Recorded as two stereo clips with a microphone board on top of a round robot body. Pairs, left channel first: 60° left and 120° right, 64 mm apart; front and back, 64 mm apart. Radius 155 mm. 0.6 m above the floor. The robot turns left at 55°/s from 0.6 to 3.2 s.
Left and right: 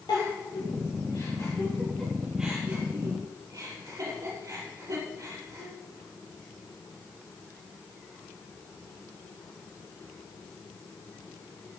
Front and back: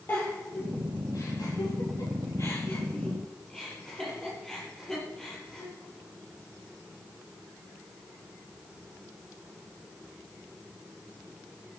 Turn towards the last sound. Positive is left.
turn(degrees=-80)